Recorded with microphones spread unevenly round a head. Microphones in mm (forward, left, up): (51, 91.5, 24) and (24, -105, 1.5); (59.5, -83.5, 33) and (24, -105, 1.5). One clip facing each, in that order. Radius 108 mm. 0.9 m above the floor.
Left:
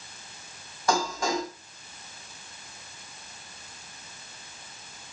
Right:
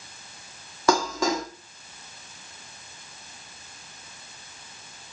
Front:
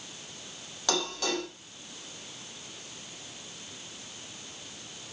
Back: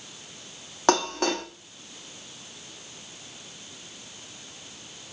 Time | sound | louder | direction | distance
0.9 | dishes clattering | right 4 dB, back 8 dB | 130° right | 1.3 m